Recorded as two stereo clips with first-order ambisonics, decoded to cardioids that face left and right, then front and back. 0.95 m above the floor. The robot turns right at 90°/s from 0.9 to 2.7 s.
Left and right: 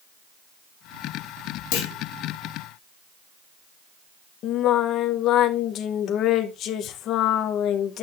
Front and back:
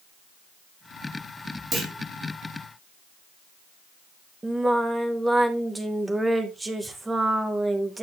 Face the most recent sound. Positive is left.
turn(degrees=105)